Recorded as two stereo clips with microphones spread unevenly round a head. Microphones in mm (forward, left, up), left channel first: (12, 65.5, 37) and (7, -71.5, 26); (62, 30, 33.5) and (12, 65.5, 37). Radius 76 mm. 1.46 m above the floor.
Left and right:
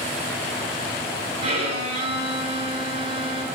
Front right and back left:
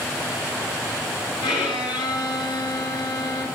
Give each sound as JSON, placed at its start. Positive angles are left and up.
{"t": 1.4, "sound": "a violin", "azimuth_deg": -45, "distance_m": 4.0}